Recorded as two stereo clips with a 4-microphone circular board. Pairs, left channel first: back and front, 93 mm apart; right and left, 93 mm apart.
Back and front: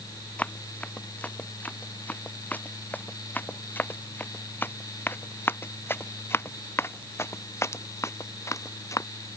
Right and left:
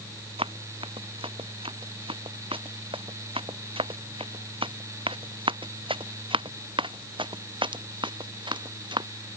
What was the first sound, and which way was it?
Running footsteps, 105° left.